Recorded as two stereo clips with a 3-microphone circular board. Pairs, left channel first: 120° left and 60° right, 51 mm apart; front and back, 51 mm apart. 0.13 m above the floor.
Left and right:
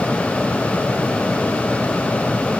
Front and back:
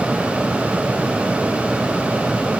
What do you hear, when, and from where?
Only background noise.